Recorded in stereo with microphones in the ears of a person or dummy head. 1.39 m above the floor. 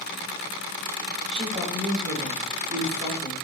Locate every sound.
1.3 s a woman speaking: 35° right (ahead or behind), 2 m